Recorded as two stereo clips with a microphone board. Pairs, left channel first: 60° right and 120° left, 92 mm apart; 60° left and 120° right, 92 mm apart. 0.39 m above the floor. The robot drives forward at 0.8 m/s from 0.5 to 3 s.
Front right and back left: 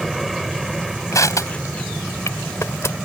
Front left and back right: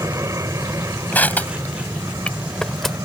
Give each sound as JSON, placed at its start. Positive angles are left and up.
{"t": 0.0, "sound": "an aircraft", "azimuth_deg": -150}
{"t": 1.1, "sound": "crushing", "azimuth_deg": -10}